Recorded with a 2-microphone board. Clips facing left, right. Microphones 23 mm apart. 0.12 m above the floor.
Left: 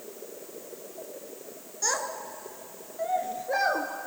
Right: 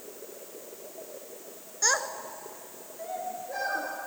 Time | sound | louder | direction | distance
1.8 | a child speaking | right 2 dB | 30° right (ahead or behind) | 1.0 m